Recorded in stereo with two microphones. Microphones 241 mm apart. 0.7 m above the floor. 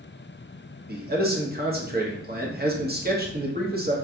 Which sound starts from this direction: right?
A man speaking, at 0.9 s.